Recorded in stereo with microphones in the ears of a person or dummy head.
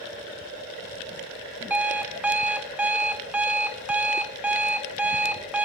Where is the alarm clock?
5° right (ahead or behind), 0.7 m.